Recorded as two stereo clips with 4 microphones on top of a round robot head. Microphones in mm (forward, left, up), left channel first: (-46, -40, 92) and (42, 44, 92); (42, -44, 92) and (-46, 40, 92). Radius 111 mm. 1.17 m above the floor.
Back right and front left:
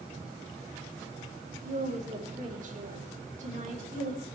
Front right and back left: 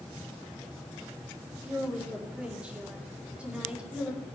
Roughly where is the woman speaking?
Ahead left.